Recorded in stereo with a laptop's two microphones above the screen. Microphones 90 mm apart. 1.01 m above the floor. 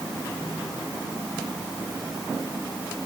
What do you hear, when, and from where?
Only background noise.